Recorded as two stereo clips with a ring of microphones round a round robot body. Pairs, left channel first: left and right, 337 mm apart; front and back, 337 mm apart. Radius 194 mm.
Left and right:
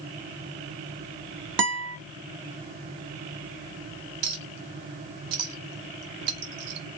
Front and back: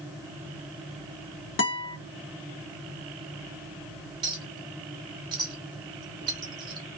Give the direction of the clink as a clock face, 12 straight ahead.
3 o'clock.